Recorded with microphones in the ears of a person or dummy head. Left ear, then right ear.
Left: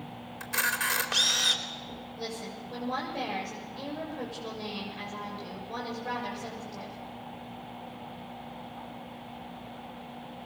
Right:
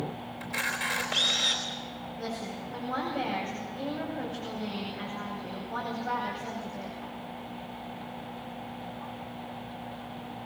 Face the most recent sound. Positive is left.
turn(degrees=70)  # may be behind; listen again after turning